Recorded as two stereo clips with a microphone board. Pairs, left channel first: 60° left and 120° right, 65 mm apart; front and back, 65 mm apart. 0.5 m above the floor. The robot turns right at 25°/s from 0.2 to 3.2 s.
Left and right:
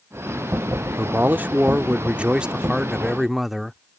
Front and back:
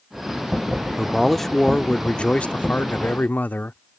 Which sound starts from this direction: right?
A man speaking, at 1.0 s.